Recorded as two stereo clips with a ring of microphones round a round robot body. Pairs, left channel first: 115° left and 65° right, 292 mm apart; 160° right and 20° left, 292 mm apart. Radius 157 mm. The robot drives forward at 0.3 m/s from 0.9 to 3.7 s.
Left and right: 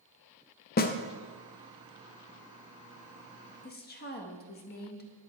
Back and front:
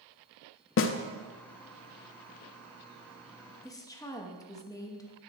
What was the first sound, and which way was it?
A snare drum, 165° left.